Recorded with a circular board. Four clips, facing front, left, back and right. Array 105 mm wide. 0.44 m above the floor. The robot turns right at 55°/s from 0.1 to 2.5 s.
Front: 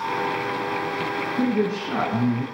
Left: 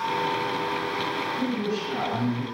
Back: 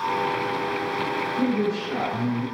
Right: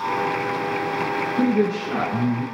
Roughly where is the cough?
No cough in this recording.